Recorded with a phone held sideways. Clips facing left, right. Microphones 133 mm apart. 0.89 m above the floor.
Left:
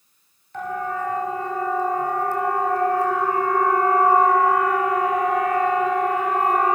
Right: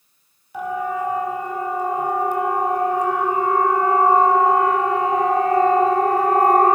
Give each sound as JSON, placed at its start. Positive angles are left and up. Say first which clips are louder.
{"t": 0.5, "sound": "a siren", "louder": "right 3 dB", "side_deg": -10, "distance_m": 5.0}